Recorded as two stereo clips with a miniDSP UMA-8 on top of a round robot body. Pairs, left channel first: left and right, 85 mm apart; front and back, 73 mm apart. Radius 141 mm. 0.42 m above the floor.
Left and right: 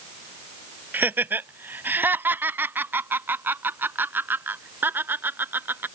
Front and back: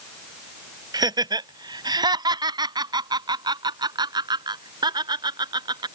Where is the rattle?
No rattle in this recording.